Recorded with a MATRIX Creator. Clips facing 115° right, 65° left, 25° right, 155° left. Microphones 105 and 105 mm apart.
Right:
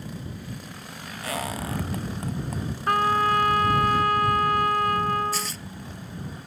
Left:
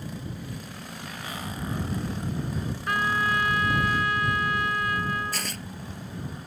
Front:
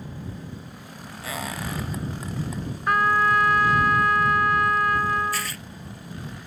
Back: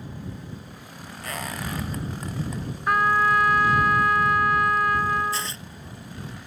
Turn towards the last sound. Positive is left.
turn(degrees=95)